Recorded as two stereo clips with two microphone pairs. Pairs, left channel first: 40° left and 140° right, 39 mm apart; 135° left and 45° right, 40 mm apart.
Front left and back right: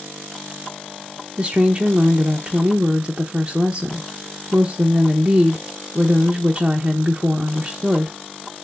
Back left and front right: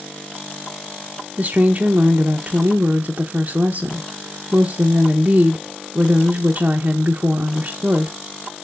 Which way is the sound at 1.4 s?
85° right.